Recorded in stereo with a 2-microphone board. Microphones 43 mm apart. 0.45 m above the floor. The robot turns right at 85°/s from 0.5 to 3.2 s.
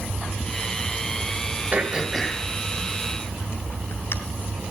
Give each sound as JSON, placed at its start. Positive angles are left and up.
{"t": 1.7, "sound": "throat clearing", "side_deg": -40, "distance_m": 2.0}